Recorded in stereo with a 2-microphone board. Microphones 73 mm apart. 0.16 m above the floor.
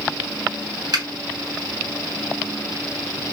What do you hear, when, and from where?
0.9 s a finger snap: 60° right (ahead or behind), 2.5 m